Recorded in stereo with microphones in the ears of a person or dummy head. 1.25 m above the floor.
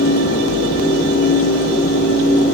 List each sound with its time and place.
Only background noise.